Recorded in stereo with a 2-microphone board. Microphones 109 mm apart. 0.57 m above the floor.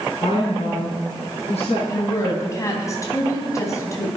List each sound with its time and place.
0.2 s a woman speaking: 75° left (ahead or behind), 5.5 m
1.9 s a woman speaking: 30° left (ahead or behind), 3.5 m